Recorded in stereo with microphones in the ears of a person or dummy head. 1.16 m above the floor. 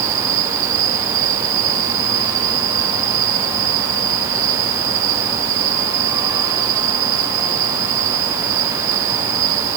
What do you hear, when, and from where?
0.0 s an insect: 50° right (ahead or behind)